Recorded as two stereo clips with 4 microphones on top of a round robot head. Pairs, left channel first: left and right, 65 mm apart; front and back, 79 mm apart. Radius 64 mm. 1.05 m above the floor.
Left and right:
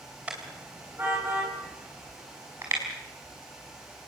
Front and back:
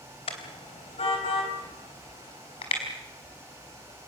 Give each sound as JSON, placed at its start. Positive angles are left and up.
{"t": 0.3, "sound": "a car horn", "azimuth_deg": -15, "distance_m": 3.0}